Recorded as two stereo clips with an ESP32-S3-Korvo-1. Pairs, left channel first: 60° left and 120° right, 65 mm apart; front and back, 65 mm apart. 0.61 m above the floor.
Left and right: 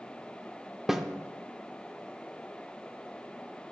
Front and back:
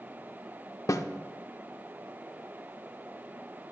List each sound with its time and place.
0.9 s a snare drum: 35° right, 0.5 m